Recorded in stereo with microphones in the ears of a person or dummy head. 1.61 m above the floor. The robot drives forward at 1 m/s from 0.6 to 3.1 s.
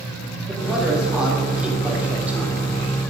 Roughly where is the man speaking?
Centre.